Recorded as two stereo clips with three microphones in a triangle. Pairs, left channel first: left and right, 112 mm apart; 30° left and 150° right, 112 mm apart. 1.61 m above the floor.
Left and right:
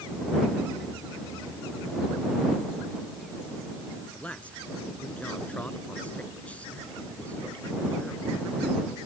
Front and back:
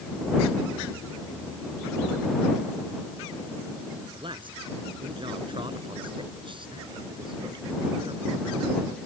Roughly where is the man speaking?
Behind.